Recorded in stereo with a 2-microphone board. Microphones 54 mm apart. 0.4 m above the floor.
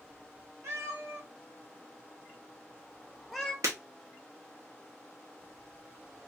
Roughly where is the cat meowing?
Right.